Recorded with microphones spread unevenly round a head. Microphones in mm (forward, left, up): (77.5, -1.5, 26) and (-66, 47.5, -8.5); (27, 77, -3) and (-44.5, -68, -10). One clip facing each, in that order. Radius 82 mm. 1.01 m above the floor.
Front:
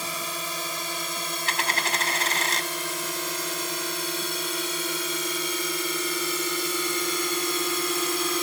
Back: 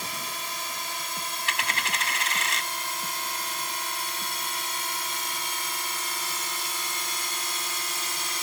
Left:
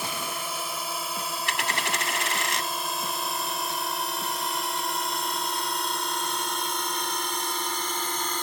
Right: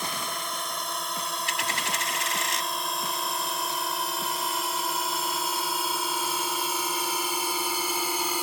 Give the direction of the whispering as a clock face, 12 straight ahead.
I don't hear whispering.